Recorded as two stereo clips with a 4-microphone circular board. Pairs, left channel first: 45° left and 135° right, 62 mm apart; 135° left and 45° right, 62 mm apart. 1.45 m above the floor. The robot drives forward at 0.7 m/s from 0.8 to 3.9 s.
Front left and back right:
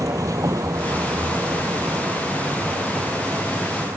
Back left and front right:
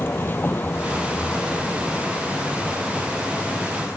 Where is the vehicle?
170° right; by 4.0 s 160° right.